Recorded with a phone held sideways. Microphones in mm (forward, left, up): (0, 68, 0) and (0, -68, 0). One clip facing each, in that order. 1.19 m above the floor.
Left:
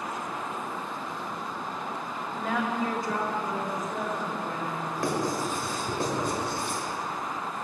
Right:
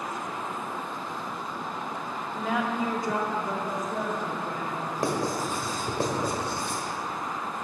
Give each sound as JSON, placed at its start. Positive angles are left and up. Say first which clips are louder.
{"t": 2.3, "sound": "a woman speaking", "louder": "right 1 dB", "side_deg": 5, "distance_m": 1.1}
{"t": 5.0, "sound": "writing", "louder": "even", "side_deg": -35, "distance_m": 1.7}